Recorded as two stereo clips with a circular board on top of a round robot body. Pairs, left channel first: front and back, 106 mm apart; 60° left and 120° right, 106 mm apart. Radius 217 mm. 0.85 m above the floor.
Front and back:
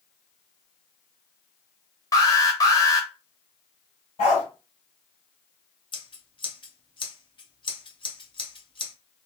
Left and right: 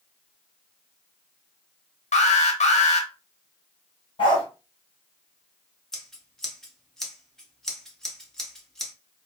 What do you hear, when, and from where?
2.1 s an alarm: 55° left, 1.0 m
4.2 s a dog barking: 20° left, 1.6 m
5.9 s scissors: 25° right, 1.2 m